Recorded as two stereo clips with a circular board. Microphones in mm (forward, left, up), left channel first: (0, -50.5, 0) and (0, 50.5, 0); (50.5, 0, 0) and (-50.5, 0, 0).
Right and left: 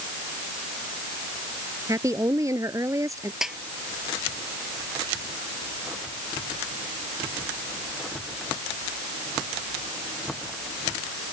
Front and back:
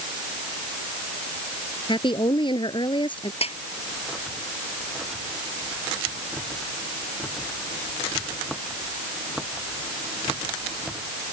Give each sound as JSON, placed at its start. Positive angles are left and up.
{"t": 1.9, "sound": "a woman speaking", "azimuth_deg": 35}
{"t": 3.4, "sound": "a snare drum", "azimuth_deg": 5}